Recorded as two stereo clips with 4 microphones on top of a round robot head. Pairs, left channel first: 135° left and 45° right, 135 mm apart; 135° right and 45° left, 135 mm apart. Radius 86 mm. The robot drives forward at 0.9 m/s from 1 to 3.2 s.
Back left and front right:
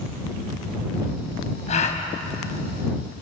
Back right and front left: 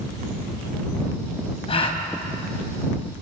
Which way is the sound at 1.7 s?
175° left.